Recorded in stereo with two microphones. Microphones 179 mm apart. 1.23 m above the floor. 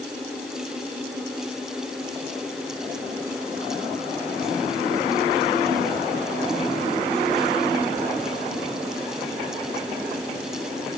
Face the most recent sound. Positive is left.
No sound to turn to.